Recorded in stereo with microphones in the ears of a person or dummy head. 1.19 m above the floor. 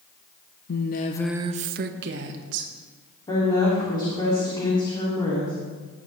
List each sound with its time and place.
0.7 s a woman speaking: 60° left (ahead or behind), 0.9 m; by 2.7 s 75° right (ahead or behind), 2 m
3.3 s a woman speaking: 25° left (ahead or behind), 3 m